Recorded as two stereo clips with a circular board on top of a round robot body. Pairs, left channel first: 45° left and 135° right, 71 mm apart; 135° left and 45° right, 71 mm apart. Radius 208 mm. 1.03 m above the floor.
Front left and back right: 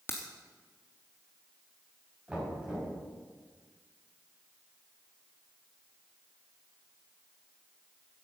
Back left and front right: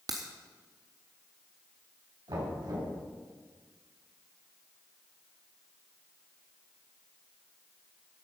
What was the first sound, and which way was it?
A crack, 10° right.